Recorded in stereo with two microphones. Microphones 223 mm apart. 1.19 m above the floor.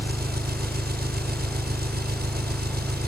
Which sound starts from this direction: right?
An engine running, at 0.0 s.